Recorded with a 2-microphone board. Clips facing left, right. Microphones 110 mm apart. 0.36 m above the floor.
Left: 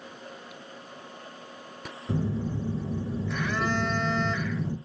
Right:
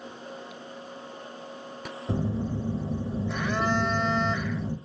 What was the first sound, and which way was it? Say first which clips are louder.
A phone buzzing: even; 25° right (ahead or behind).